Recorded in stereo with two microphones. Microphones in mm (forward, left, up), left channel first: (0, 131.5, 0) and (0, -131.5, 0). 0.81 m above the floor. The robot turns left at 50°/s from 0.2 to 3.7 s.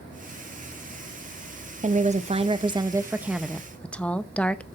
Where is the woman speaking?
30° right (ahead or behind), 0.6 m; by 4.7 s 5° left (ahead or behind), 0.6 m.